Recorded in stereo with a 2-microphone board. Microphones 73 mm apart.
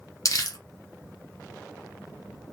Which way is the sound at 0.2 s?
55° left (ahead or behind).